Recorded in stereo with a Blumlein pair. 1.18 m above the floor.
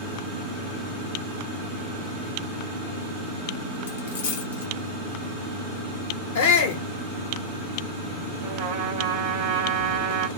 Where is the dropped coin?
65° left, 1.3 m.